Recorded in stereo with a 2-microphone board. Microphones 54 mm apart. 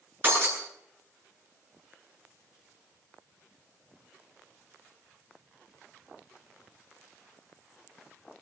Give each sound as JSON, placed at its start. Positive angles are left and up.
{"t": 0.2, "sound": "breaking glass", "side_deg": -35, "distance_m": 9.5}